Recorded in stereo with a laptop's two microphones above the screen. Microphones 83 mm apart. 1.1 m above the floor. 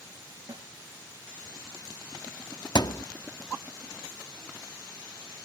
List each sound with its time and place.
0.5 s a snare drum: 65° right (ahead or behind)
2.8 s a thud: 55° left (ahead or behind)